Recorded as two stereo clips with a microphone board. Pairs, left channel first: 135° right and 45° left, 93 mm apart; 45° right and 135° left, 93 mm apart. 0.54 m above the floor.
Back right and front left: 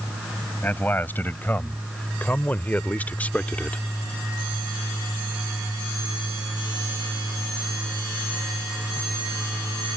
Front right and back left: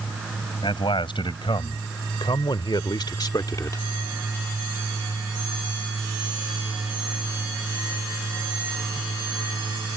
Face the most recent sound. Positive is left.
turn(degrees=-65)